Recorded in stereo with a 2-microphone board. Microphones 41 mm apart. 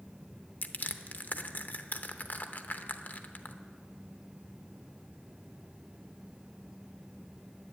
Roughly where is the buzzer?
I don't hear a buzzer.